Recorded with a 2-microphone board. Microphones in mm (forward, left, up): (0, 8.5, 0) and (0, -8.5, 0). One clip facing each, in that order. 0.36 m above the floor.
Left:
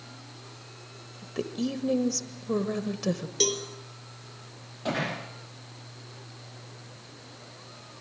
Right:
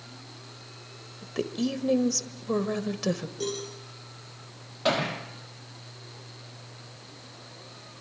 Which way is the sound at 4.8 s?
35° right (ahead or behind).